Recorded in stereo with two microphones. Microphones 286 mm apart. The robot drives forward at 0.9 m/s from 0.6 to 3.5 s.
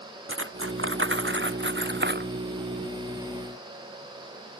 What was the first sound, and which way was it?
Cutlery clinking, 45° right (ahead or behind).